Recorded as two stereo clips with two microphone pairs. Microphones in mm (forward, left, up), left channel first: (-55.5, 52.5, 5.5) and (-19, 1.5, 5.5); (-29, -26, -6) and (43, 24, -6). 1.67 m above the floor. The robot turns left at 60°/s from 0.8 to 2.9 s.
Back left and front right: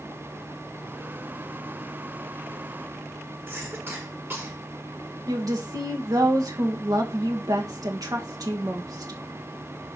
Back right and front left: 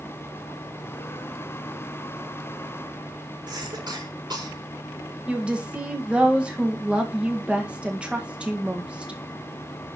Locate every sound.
3.5 s a cough: straight ahead, 5 m
5.3 s a woman speaking: 40° right, 1.9 m